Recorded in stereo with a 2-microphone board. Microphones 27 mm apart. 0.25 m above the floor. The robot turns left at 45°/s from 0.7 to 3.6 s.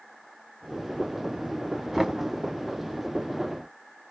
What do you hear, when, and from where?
1.9 s knocking: 5° right (ahead or behind), 1.0 m; by 2.2 s 15° right (ahead or behind), 1.0 m